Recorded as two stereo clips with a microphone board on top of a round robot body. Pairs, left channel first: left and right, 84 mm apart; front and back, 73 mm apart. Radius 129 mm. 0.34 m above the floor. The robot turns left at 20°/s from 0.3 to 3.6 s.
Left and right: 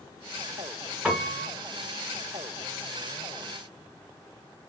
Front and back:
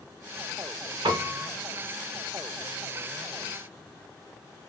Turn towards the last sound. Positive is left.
turn(degrees=135)